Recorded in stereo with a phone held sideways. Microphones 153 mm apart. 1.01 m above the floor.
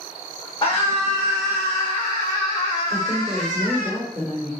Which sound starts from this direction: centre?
A woman speaking, at 2.9 s.